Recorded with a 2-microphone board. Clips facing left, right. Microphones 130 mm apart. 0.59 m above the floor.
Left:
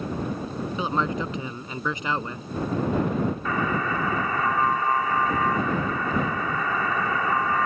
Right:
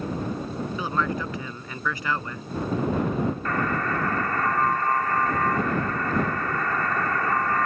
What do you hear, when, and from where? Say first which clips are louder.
0.8 s a man speaking: left 2 dB; 20° left (ahead or behind)
3.5 s a buzzer: even; 5° left (ahead or behind)